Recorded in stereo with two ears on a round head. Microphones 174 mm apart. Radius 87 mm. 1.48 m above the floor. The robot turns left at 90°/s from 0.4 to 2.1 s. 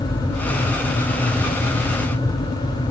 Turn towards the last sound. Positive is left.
No sound to turn to.